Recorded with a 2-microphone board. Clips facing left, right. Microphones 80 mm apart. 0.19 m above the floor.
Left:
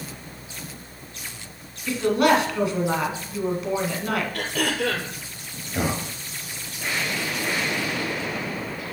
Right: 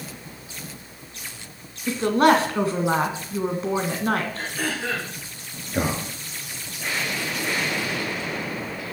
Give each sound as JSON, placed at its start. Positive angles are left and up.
{"t": 1.9, "sound": "a woman speaking", "side_deg": -35, "distance_m": 2.0}
{"t": 4.3, "sound": "throat clearing", "side_deg": 70, "distance_m": 2.5}
{"t": 5.7, "sound": "a man speaking", "side_deg": -15, "distance_m": 2.5}